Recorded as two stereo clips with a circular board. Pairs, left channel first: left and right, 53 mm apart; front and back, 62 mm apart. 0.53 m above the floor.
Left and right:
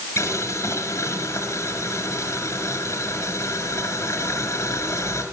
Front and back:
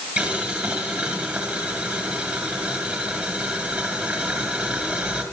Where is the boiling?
115° left, 6 m.